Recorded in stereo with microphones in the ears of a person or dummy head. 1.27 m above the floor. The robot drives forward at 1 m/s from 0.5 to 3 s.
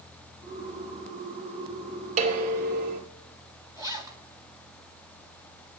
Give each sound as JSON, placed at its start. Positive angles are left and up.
{"t": 2.2, "sound": "dishes clattering", "side_deg": -45, "distance_m": 3.0}
{"t": 3.8, "sound": "a zipper", "side_deg": -15, "distance_m": 1.6}